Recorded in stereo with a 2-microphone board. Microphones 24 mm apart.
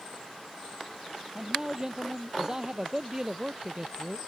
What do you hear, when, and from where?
1.4 s a man speaking: 25° right (ahead or behind)